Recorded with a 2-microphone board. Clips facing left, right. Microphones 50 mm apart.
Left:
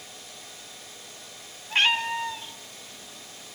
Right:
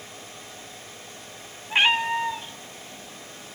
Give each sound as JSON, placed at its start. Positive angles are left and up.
{"t": 1.7, "sound": "a cat meowing", "side_deg": -15, "distance_m": 1.0}